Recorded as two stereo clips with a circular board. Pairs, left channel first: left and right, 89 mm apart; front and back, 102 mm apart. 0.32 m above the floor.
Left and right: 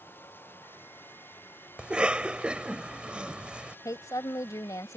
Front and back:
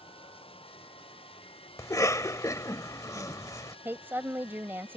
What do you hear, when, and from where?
0.0 s running water: 25° left
1.8 s a cough: 20° right
3.9 s a woman speaking: 120° left